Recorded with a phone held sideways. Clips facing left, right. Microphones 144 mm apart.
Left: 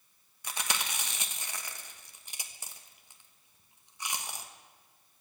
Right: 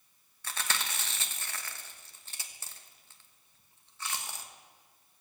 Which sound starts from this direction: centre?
Chewing, at 0.4 s.